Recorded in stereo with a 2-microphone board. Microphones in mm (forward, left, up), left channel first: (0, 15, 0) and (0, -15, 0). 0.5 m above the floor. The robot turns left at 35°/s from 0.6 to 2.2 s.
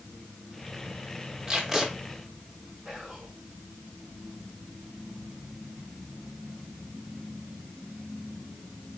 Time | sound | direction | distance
1.5 | tape being pulled | 20° right (ahead or behind) | 1.0 m
2.9 | whispering | 15° right (ahead or behind) | 1.2 m